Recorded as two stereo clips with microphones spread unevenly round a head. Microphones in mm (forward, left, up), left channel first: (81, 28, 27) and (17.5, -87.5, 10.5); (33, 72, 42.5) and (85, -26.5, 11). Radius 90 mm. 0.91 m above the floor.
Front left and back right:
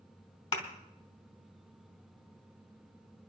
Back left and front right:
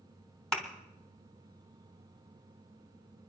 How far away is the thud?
About 2.5 m.